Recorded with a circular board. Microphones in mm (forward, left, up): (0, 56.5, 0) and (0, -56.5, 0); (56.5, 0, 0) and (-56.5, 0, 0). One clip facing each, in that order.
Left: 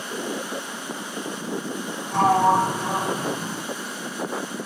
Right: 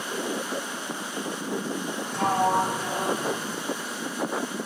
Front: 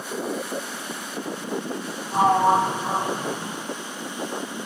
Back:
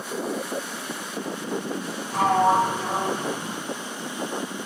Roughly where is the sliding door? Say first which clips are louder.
Left 6 dB, front 1 dB; ahead left.